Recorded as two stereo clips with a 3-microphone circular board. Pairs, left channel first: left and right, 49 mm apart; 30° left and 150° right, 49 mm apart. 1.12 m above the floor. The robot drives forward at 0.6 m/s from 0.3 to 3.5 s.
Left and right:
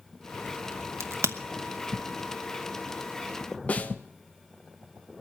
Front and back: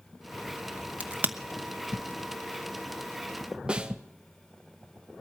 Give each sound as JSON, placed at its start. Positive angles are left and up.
{"t": 1.0, "sound": "a crack", "azimuth_deg": -90, "distance_m": 0.9}
{"t": 3.7, "sound": "a snare drum", "azimuth_deg": 140, "distance_m": 0.9}